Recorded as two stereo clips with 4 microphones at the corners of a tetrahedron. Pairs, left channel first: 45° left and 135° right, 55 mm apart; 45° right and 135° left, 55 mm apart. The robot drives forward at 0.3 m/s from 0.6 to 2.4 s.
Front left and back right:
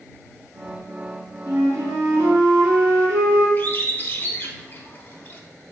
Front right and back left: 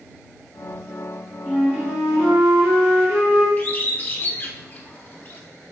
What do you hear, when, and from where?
1.5 s a flute: 145° right, 0.8 m; by 3.5 s 155° right, 1.1 m
3.6 s a bird: 5° right, 0.5 m